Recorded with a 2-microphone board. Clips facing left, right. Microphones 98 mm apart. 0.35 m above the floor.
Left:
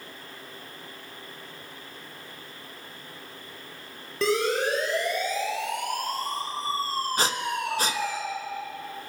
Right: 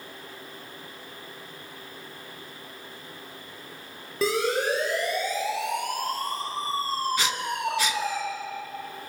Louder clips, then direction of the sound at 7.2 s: Left 1 dB; 40° left (ahead or behind).